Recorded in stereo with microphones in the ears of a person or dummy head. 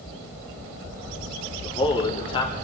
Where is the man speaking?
25° left (ahead or behind), 4 m.